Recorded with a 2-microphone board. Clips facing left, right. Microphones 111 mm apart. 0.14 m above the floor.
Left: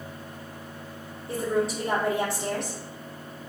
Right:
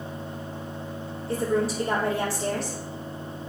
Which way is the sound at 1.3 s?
20° left (ahead or behind).